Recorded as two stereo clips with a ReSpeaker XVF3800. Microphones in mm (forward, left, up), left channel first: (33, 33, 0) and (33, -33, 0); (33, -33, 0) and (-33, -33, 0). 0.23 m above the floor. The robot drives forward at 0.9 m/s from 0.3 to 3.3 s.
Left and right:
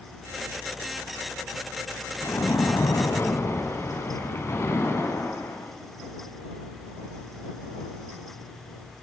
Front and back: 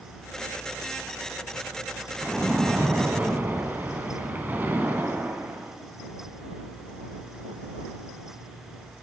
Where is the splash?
80° left, 1.5 m; by 5.7 s 125° left, 1.7 m.